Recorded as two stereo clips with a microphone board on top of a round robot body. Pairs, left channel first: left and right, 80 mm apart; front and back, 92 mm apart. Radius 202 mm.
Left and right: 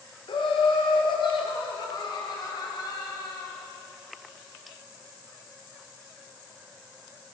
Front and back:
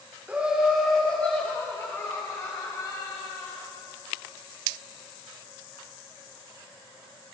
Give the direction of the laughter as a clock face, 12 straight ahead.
8 o'clock.